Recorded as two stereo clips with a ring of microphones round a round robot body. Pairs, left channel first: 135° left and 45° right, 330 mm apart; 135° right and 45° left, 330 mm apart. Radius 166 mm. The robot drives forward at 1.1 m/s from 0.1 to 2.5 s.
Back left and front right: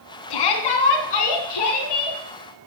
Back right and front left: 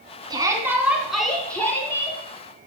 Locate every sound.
0.3 s a shout: 125° left, 3.5 m; by 2.2 s 145° left, 5 m